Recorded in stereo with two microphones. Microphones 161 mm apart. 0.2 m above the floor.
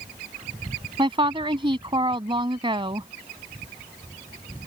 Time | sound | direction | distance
1.0 | a woman speaking | 30° right (ahead or behind) | ?